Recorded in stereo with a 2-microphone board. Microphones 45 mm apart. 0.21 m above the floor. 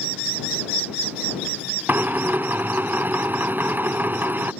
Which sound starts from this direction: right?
A drill, at 1.9 s.